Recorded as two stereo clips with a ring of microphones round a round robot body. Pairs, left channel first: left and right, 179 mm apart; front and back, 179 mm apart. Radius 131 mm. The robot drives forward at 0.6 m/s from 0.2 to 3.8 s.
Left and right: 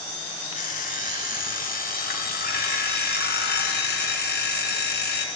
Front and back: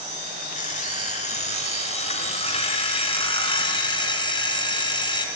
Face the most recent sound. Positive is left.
turn(degrees=65)